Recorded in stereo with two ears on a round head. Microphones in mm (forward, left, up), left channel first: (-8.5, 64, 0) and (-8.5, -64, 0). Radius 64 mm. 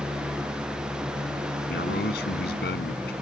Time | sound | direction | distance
1.7 | a man speaking | 85° left | ?